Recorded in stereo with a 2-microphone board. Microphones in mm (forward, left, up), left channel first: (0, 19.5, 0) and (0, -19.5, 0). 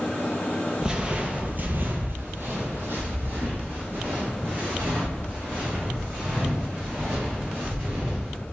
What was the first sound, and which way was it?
Footsteps, 20° right (ahead or behind).